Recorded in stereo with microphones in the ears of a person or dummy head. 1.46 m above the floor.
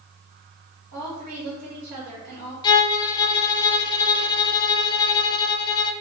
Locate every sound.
0.9 s a woman speaking: 65° right (ahead or behind), 2 m
2.6 s a violin: 20° left (ahead or behind), 0.6 m